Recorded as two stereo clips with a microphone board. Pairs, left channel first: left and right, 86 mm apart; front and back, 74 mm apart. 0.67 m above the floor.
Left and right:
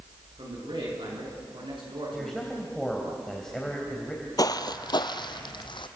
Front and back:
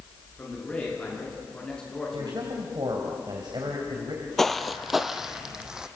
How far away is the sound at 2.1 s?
About 3 m.